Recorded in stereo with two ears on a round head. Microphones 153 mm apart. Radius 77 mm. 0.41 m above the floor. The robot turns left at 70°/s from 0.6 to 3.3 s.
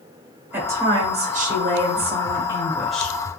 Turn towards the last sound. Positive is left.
turn(degrees=155)